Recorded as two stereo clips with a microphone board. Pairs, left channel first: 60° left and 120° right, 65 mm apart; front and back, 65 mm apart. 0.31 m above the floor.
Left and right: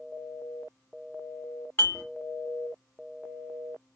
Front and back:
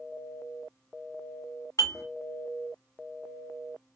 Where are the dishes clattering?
10° left, 1.7 m.